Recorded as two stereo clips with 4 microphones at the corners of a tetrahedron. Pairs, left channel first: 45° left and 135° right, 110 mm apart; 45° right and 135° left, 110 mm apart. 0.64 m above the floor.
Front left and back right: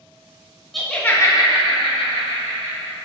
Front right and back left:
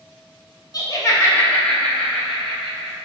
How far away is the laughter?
About 0.7 m.